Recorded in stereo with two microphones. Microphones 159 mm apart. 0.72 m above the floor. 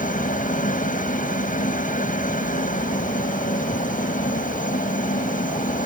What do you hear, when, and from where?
0.0 s a helicopter: 55° left (ahead or behind)